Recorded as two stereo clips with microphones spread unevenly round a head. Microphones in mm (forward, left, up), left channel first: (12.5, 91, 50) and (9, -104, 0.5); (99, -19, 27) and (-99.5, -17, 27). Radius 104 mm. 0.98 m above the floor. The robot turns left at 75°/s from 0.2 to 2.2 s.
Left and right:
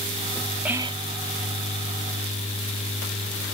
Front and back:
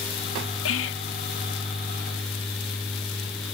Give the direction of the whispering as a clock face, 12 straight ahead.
12 o'clock.